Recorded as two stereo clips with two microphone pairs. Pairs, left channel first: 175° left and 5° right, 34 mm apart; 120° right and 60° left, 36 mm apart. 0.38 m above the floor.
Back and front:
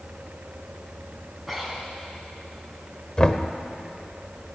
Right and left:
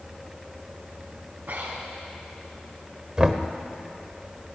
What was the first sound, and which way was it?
Breathing, 80° left.